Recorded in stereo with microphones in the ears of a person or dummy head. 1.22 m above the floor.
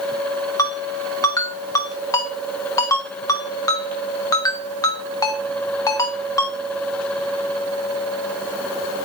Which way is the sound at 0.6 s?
15° left (ahead or behind).